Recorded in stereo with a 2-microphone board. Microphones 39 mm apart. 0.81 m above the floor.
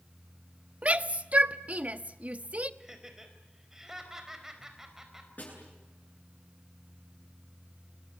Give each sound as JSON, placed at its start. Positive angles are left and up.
{"t": 0.8, "sound": "a shout", "side_deg": -35, "distance_m": 0.9}
{"t": 2.8, "sound": "laughter", "side_deg": -15, "distance_m": 4.5}
{"t": 5.4, "sound": "a snare drum", "side_deg": 45, "distance_m": 9.0}